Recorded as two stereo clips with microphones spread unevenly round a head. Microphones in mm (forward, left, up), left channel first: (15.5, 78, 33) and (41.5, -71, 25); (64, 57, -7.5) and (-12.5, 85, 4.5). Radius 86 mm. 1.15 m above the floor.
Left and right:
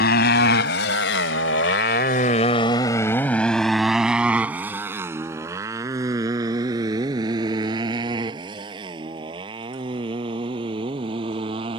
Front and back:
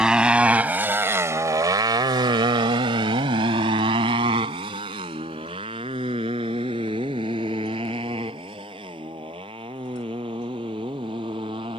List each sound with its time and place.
0.0 s a motorcycle: 80° left; by 11.8 s 140° right